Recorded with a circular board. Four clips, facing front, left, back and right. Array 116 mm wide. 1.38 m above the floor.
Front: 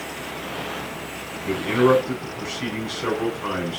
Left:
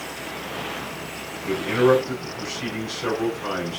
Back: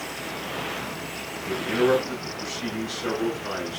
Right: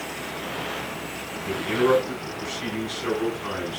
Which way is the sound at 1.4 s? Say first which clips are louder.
Left 3 dB, front 4 dB; 20° left.